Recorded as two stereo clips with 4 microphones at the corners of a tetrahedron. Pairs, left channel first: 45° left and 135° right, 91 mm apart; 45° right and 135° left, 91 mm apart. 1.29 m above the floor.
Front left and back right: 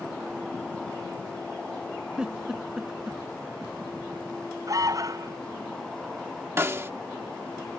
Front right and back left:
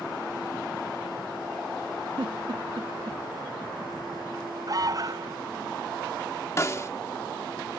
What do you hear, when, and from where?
2.2 s a giggle: 145° left
4.7 s an alarm: straight behind
6.6 s a snare drum: 85° right